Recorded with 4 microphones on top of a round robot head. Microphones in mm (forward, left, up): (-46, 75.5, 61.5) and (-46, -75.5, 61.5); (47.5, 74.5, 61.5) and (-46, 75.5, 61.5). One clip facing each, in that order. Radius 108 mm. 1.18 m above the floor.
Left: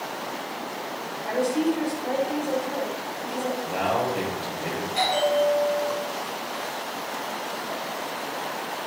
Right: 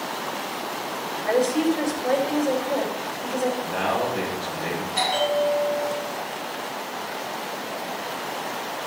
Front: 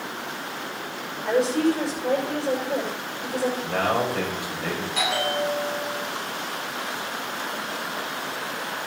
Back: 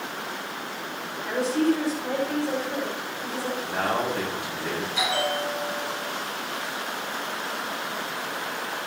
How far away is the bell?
About 8 m.